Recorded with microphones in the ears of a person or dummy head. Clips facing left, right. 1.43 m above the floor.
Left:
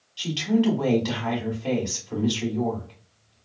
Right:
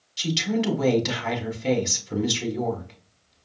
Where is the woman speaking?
30° right (ahead or behind), 1.4 m.